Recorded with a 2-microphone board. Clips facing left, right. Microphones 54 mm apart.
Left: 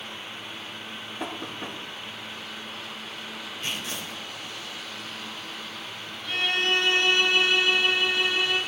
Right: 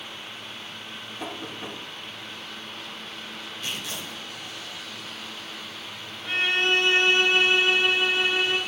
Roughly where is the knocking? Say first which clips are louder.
Left 1 dB; left.